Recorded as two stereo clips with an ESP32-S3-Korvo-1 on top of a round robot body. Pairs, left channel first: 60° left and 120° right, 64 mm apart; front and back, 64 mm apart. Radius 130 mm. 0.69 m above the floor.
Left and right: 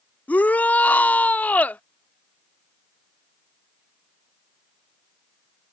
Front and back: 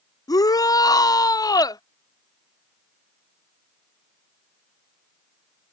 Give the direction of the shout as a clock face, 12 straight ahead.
12 o'clock.